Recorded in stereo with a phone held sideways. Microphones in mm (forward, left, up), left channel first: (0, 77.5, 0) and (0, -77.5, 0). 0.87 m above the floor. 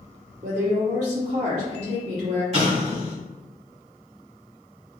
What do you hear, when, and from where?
0.4 s a woman speaking: 55° right (ahead or behind), 1.4 m
2.5 s an explosion: 45° right (ahead or behind), 1.5 m